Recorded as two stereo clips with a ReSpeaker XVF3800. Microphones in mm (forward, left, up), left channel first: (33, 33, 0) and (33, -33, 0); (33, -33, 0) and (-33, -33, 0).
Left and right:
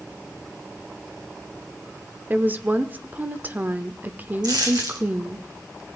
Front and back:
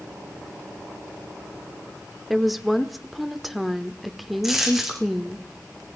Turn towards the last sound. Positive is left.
turn(degrees=-95)